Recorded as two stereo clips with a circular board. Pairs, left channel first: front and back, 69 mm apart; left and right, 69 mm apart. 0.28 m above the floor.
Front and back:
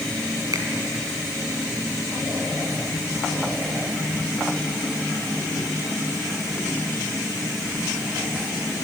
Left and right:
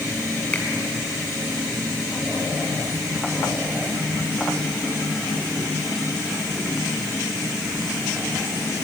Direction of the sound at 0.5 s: 155° left.